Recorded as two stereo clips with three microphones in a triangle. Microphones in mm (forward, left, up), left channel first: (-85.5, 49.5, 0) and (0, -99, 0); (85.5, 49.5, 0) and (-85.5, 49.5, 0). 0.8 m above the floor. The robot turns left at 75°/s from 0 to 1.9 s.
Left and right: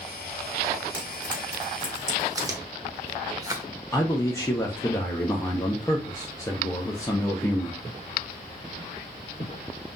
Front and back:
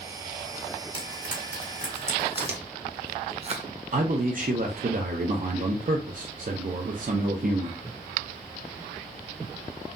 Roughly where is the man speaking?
Behind.